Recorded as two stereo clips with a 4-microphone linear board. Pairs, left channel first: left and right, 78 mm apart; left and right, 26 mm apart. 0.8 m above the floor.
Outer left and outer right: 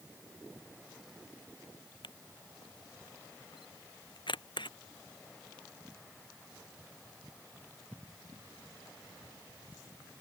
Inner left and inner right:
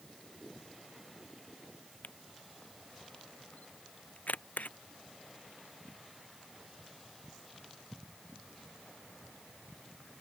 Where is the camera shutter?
80° left.